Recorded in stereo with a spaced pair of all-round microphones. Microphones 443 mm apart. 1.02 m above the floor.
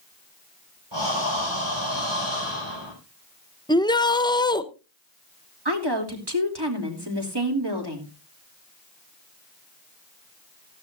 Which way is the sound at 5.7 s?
60° right (ahead or behind).